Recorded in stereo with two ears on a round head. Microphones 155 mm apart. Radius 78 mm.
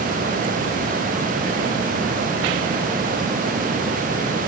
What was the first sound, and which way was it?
Only background noise.